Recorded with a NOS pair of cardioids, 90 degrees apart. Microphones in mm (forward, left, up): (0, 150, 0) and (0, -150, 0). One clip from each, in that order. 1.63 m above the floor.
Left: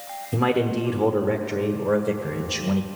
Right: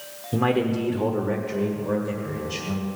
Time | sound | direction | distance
0.3 | a man speaking | straight ahead | 1.3 m